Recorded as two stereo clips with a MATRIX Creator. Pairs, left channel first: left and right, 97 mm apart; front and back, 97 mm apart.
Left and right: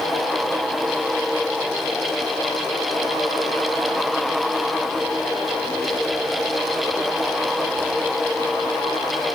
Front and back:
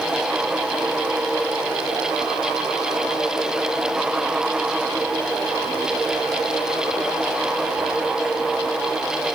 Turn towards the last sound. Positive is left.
No sound to turn to.